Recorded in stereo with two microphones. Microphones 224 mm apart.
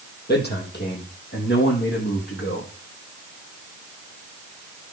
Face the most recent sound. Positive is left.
turn(degrees=50)  # may be behind; listen again after turning